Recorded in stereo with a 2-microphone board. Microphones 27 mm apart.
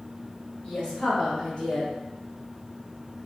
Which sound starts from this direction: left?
A woman speaking, at 0.6 s.